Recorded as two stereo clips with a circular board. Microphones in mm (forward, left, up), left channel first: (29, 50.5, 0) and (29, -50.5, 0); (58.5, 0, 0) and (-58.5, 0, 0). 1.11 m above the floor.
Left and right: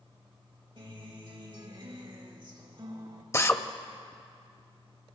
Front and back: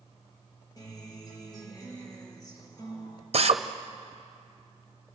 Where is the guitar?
55° right, 3.5 m.